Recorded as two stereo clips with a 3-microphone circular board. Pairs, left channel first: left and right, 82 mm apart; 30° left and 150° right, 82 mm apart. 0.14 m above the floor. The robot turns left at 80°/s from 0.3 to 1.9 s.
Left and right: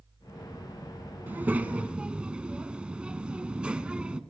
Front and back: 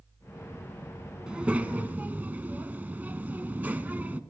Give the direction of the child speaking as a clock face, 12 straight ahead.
3 o'clock.